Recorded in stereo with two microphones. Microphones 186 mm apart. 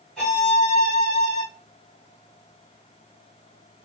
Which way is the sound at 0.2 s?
5° left (ahead or behind).